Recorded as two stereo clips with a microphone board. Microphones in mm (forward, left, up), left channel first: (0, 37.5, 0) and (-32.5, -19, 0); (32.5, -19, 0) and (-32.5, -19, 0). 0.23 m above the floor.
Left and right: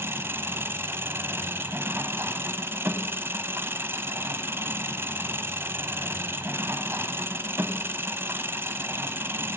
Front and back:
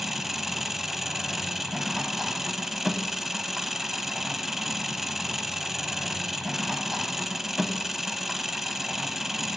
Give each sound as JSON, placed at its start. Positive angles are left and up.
{"t": 0.0, "sound": "an engine running", "azimuth_deg": -95, "distance_m": 0.7}